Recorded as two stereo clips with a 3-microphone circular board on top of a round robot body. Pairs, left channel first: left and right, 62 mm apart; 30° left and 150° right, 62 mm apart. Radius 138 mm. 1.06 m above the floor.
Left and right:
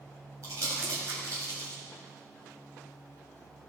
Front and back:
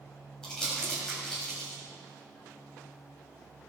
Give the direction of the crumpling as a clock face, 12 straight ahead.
2 o'clock.